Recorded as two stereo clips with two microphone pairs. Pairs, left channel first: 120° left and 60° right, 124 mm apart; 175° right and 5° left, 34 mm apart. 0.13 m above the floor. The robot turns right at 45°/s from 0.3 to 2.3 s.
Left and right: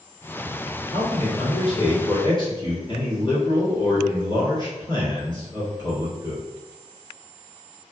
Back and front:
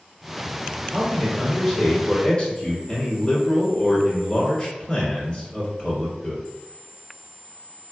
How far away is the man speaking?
About 1.4 m.